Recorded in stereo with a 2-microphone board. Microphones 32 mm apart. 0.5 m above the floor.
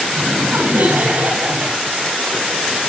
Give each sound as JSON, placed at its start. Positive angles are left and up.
{"t": 0.1, "sound": "laughter", "side_deg": -75, "distance_m": 8.0}